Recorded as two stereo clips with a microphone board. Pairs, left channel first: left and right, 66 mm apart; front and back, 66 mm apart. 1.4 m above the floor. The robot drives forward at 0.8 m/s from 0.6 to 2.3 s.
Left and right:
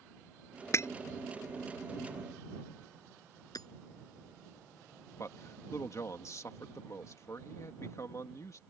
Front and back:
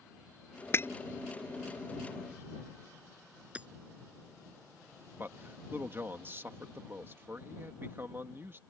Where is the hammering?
110° left.